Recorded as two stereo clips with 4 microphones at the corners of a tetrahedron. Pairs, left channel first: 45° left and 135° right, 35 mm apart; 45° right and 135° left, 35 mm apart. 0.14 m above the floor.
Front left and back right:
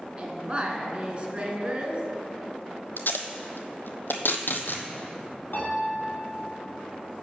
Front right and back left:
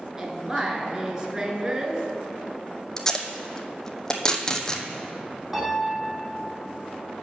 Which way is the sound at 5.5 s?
60° left.